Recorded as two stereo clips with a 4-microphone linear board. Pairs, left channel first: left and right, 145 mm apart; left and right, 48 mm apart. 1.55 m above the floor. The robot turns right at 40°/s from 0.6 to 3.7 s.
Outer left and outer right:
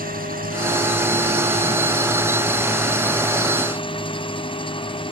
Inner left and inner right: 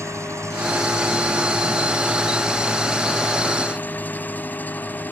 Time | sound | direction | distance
0.0 | an engine running | 85° right | ?